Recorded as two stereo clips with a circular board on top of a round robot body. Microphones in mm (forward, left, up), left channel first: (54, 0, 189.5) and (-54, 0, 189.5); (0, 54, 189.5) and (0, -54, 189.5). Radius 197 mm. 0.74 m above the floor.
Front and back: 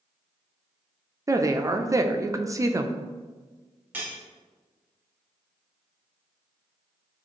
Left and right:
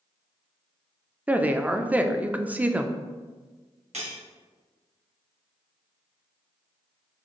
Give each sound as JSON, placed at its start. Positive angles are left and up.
{"t": 1.3, "sound": "a woman speaking", "azimuth_deg": -155, "distance_m": 0.6}
{"t": 3.9, "sound": "cutlery clinking", "azimuth_deg": -105, "distance_m": 1.2}